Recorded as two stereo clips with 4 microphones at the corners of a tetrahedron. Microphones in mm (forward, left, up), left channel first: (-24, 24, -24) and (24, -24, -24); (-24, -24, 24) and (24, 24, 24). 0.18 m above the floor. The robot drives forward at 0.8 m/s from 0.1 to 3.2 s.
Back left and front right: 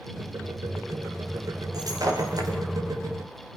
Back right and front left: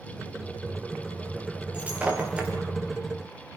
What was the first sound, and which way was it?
Breaking glass, 25° right.